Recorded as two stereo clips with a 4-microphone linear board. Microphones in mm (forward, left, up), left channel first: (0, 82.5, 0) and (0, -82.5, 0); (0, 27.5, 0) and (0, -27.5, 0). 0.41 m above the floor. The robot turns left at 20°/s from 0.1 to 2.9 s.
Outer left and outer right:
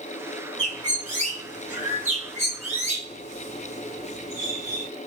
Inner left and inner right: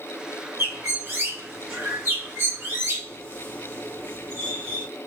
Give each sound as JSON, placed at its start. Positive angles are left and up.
{"t": 0.6, "sound": "a bird", "side_deg": -45, "distance_m": 2.0}